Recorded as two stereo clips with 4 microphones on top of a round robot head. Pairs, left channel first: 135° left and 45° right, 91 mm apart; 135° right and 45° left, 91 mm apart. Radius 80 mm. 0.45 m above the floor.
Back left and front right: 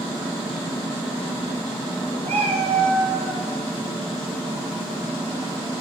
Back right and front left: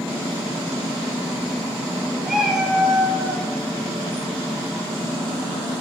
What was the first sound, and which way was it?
A cat meowing, 40° right.